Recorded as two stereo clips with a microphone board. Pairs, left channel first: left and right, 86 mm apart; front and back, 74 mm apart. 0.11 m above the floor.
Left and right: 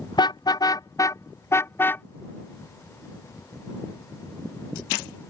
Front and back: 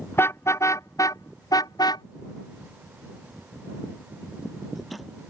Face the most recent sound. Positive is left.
turn(degrees=25)